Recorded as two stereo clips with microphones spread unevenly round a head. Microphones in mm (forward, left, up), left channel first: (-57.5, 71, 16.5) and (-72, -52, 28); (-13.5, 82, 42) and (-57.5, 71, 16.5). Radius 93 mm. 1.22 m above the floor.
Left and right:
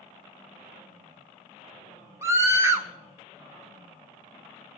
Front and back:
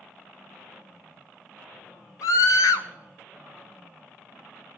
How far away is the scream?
About 1.2 m.